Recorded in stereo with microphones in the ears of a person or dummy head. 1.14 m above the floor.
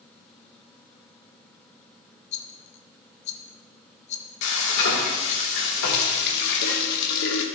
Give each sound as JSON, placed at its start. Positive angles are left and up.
{"t": 2.3, "sound": "a rattle", "side_deg": 40, "distance_m": 1.2}
{"t": 4.4, "sound": "frying", "side_deg": 70, "distance_m": 2.5}
{"t": 5.8, "sound": "a running tap", "side_deg": 70, "distance_m": 1.5}